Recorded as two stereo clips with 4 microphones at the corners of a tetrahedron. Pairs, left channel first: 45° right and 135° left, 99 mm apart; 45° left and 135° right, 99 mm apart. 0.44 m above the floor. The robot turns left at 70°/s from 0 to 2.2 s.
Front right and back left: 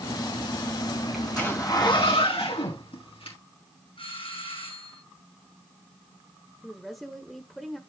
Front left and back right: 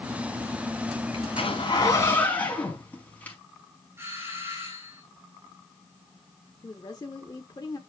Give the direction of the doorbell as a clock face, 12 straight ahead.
2 o'clock.